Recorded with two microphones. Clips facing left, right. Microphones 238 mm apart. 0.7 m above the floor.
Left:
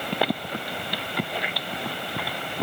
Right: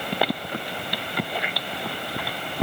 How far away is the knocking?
I don't hear knocking.